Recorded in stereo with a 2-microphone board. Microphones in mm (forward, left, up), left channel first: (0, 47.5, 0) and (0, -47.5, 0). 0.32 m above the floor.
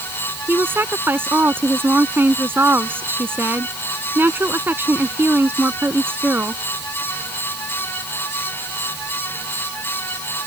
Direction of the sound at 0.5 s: 20° right (ahead or behind).